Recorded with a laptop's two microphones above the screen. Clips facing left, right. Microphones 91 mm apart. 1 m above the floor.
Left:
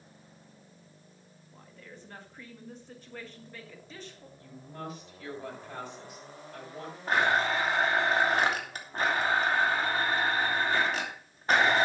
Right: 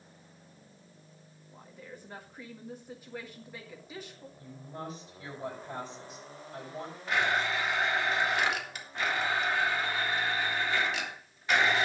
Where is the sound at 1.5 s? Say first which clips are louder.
Right 2 dB; 10° right (ahead or behind), 1.8 m.